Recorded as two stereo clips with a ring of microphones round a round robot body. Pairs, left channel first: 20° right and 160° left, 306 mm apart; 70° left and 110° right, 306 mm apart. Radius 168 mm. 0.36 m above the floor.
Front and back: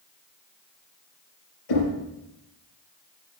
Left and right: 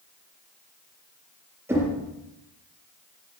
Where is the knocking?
30° right, 7 m.